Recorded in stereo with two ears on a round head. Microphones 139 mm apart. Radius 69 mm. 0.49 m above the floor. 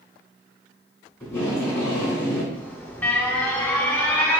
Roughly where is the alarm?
Centre.